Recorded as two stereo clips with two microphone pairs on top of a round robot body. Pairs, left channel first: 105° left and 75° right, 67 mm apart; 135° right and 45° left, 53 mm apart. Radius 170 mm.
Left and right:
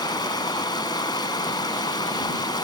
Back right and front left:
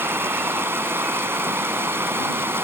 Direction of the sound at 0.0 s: 90° left.